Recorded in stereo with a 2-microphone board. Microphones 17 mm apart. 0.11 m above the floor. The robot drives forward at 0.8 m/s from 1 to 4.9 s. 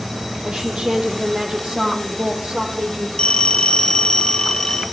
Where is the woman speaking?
60° right (ahead or behind), 5 m; by 3.1 s 70° right (ahead or behind), 4.5 m.